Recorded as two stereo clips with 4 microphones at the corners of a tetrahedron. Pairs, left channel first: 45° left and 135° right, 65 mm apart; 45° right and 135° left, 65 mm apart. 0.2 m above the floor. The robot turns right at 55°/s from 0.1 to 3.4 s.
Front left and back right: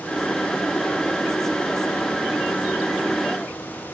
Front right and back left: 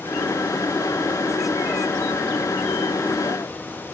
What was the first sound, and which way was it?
Only background noise.